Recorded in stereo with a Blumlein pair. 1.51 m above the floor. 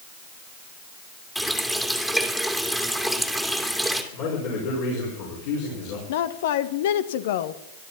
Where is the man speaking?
50° left, 5.5 m.